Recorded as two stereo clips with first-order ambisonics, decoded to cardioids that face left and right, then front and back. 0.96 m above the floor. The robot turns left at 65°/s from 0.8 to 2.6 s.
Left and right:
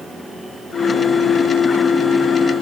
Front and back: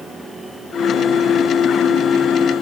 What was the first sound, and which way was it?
Only background noise.